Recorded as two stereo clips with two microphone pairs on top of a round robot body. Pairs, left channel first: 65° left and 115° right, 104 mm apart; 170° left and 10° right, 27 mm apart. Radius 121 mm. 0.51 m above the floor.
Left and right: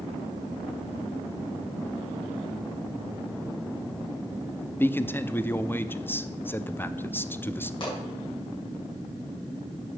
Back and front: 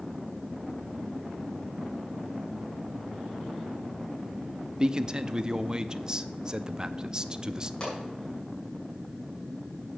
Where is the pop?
110° left, 5.5 m.